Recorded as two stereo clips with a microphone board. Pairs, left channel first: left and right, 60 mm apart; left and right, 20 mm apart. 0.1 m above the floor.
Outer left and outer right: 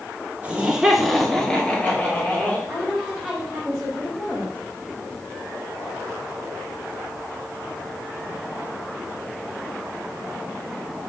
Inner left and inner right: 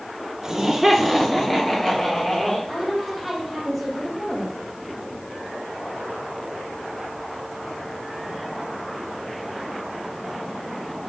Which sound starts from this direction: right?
Laughter, at 0.4 s.